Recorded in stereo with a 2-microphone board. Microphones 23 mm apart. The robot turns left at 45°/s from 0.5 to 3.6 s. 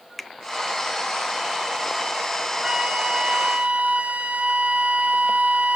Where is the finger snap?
15° left (ahead or behind), 0.8 m.